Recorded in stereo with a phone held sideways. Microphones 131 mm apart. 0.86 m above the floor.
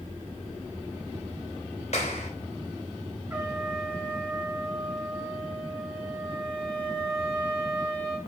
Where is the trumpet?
15° right (ahead or behind), 2.5 m.